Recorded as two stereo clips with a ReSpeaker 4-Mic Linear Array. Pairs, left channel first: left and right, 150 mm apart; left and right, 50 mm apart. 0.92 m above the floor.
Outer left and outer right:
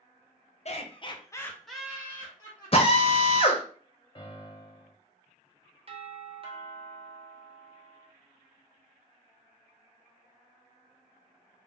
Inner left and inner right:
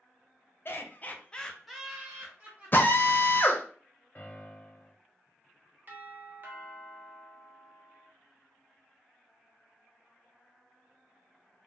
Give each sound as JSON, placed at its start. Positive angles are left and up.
{"t": 0.7, "sound": "laughter", "side_deg": 50, "distance_m": 0.6}
{"t": 2.7, "sound": "a drill", "side_deg": 40, "distance_m": 0.6}
{"t": 4.2, "sound": "a piano", "side_deg": 35, "distance_m": 0.9}
{"t": 5.9, "sound": "a doorbell", "side_deg": -40, "distance_m": 0.8}